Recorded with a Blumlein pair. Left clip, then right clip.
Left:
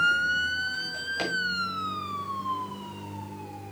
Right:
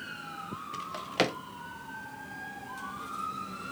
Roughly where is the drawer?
Ahead right.